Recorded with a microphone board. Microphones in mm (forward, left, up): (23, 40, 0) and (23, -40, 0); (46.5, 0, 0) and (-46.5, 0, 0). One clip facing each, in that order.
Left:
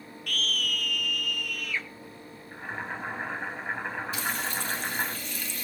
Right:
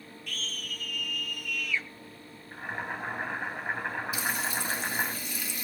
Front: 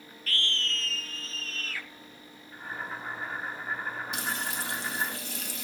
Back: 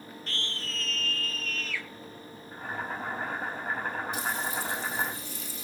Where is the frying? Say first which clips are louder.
Even, back 2 dB; 10° right, 2.5 m.